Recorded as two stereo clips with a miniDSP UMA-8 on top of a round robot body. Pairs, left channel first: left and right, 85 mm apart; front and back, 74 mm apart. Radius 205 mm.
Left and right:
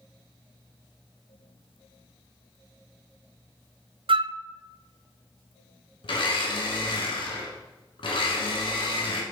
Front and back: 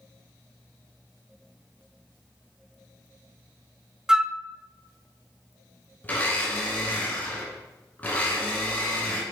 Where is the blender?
70° left, 1.9 m.